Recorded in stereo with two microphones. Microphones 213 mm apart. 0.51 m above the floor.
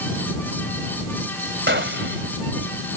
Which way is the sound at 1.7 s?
60° right (ahead or behind).